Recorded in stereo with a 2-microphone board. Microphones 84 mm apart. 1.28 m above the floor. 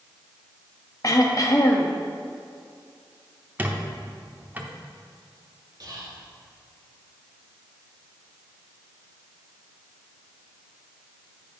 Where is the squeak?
20° right (ahead or behind), 0.9 m.